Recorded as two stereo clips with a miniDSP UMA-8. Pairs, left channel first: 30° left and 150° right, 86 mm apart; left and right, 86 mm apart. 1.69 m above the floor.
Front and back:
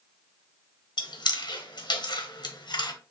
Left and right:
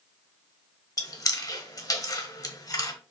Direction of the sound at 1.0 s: 50° left.